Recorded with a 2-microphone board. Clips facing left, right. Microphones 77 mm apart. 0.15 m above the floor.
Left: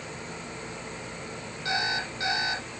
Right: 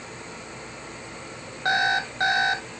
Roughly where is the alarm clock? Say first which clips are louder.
Right 7 dB; right.